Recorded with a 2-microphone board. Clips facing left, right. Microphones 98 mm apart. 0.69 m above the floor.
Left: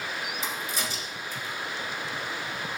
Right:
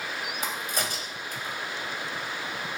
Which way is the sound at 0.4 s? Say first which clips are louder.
Right 1 dB; 60° right (ahead or behind).